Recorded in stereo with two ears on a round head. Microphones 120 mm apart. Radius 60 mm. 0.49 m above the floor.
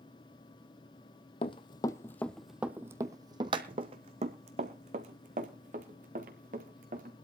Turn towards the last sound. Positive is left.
turn(degrees=-65)  # may be behind; listen again after turning